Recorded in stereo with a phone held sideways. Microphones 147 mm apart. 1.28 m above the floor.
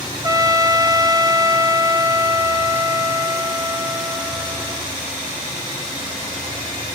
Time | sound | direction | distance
0.2 | a trumpet | 25° right (ahead or behind) | 0.7 m